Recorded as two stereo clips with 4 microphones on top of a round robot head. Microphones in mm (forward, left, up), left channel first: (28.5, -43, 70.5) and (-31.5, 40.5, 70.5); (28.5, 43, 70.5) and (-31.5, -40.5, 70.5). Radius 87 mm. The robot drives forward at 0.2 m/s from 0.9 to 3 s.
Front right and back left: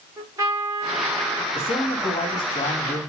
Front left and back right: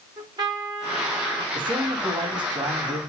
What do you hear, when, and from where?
0.2 s a trumpet: 175° right, 3 m
1.6 s a man speaking: 80° right, 3 m; by 3.0 s 85° right, 2.5 m